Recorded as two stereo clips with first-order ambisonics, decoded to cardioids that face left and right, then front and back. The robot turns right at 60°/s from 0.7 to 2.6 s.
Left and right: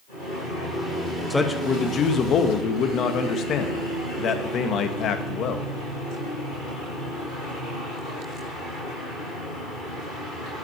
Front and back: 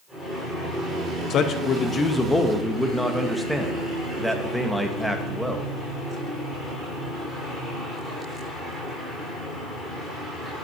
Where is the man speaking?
10° left, 0.8 m; by 5.7 s 90° left, 0.8 m.